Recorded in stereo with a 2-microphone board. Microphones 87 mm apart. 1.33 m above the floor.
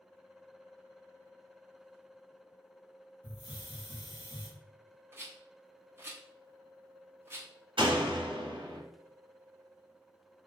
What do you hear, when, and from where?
3.2 s a hiss: 80° left, 2 m
5.1 s a rattle: 25° right (ahead or behind), 0.8 m
7.8 s a door slam: 70° right (ahead or behind), 1.2 m